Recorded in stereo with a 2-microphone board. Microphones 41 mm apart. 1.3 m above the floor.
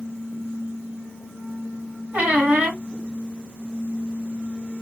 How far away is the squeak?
About 1.6 m.